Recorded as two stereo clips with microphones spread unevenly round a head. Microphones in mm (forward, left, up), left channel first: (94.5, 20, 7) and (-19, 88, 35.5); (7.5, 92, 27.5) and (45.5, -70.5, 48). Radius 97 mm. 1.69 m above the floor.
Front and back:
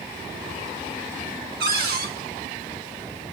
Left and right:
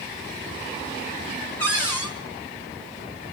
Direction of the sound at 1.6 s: 175° right.